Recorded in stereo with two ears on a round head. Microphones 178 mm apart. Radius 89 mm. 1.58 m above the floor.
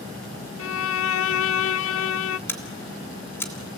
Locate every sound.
0.6 s a violin: 75° left (ahead or behind), 0.5 m
2.5 s scissors: 10° left (ahead or behind), 3.5 m